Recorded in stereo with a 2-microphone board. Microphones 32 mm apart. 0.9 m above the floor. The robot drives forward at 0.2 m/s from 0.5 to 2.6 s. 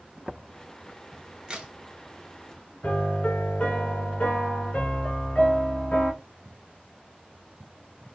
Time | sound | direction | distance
1.5 | a crack | 25° right (ahead or behind) | 0.9 m
2.8 | a piano | 50° left (ahead or behind) | 1.4 m